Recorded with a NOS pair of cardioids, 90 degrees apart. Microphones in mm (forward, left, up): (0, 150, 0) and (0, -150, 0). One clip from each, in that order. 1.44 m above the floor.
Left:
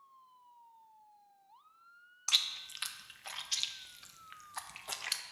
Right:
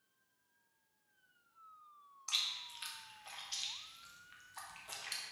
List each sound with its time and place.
2.3 s chewing: 40° left, 0.5 m